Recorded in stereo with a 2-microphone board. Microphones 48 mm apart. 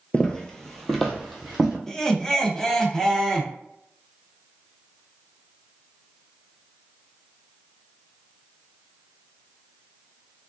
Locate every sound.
0.1 s footsteps: 20° left (ahead or behind), 0.5 m; by 1.8 s 5° right (ahead or behind), 1.2 m
1.9 s laughter: 10° left (ahead or behind), 0.6 m